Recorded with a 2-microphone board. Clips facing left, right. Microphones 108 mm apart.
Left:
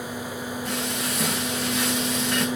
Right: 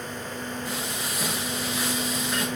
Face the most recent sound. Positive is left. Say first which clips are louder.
# left 4 dB
turn(degrees=80)